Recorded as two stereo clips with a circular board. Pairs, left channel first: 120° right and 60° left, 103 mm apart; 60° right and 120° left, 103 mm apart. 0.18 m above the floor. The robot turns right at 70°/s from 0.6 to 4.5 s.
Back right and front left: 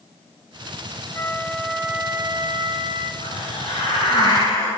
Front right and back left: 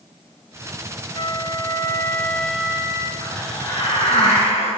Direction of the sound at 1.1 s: 65° right.